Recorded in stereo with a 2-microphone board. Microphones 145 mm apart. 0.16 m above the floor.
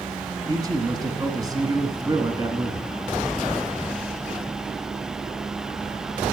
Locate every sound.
0.5 s a man speaking: 25° right (ahead or behind), 1.2 m